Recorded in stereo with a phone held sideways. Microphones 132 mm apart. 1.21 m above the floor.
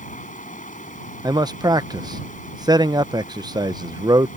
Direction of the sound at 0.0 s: 80° left.